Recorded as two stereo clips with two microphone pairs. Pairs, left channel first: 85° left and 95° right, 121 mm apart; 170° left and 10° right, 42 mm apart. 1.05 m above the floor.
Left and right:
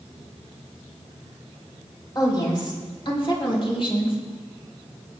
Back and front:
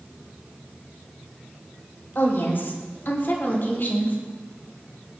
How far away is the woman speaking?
About 3.5 m.